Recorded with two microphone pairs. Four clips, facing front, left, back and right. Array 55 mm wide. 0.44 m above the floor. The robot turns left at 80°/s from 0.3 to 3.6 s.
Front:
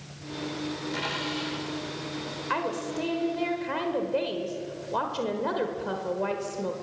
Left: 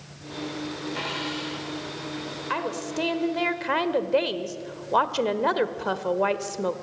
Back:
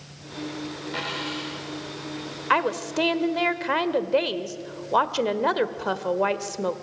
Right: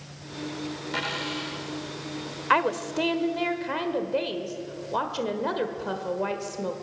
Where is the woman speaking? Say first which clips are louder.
Right 6 dB, back 7 dB; 135° right, 1.4 m; by 6.8 s 140° left, 1.4 m.